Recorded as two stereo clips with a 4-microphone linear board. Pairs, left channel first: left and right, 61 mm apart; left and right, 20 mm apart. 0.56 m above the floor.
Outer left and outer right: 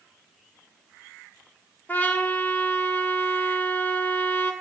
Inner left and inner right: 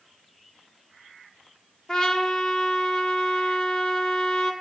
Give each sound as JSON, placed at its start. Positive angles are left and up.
{"t": 1.9, "sound": "a trumpet", "side_deg": 30, "distance_m": 1.0}